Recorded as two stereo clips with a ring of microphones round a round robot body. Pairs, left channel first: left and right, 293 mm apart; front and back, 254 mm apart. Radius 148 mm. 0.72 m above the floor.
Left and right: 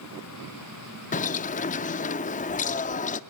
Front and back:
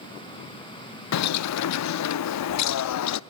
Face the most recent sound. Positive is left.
turn(degrees=25)